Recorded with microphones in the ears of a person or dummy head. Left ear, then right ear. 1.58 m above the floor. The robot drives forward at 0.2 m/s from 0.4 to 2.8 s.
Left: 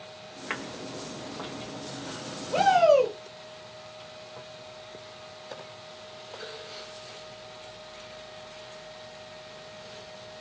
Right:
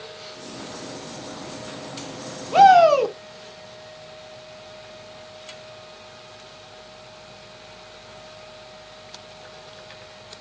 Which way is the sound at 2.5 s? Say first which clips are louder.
Right 7 dB; 55° right (ahead or behind).